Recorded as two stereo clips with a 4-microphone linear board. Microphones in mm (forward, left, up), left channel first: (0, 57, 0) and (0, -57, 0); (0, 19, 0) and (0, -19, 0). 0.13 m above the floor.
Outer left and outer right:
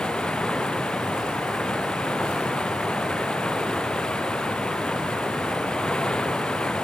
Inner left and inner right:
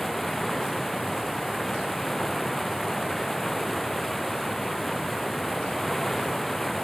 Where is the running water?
5° left (ahead or behind).